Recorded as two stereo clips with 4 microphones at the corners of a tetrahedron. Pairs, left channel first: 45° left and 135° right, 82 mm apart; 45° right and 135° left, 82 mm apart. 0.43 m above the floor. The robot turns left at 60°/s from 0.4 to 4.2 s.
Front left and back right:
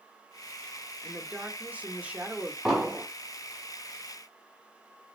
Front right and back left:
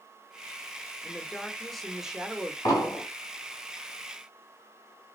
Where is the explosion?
50° right, 1.6 m; by 3.0 s 70° right, 1.6 m.